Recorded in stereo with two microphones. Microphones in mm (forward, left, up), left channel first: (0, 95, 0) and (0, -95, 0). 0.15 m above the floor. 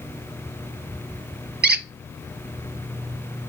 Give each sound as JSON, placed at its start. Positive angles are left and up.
{"t": 1.6, "sound": "a squeak", "side_deg": -60, "distance_m": 0.7}